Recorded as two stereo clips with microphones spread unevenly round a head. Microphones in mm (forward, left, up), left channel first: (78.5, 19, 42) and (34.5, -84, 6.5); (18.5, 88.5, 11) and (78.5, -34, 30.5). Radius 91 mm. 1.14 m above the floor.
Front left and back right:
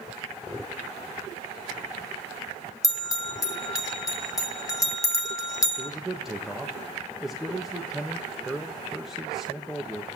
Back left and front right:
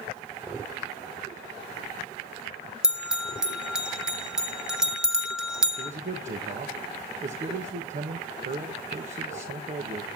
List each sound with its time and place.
2.8 s a bell: 20° left, 2 m
5.8 s a man speaking: 30° right, 1.5 m